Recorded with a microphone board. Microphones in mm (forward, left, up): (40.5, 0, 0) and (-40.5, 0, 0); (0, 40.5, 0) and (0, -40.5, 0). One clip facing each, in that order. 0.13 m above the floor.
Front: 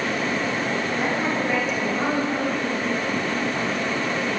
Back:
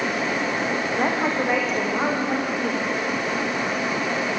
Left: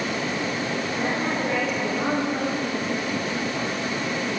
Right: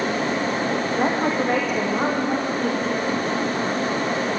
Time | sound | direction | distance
0.9 | a woman speaking | 130° right | 8.5 m